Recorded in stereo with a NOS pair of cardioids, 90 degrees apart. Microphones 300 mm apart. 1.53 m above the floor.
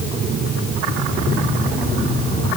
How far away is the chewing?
No chewing in this recording.